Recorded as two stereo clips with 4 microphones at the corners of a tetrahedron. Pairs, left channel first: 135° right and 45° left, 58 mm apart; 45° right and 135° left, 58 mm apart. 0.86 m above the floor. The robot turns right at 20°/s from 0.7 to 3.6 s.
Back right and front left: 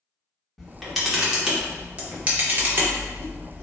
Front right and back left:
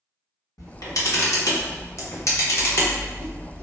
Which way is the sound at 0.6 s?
45° right.